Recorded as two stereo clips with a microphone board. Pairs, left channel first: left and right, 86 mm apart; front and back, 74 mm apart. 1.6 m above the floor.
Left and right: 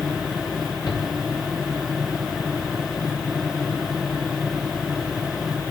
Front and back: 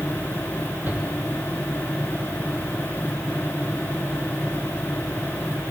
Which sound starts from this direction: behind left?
A shout, at 0.9 s.